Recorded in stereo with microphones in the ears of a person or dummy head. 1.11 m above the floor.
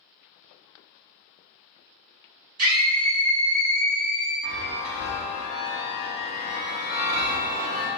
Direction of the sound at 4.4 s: 50° right (ahead or behind).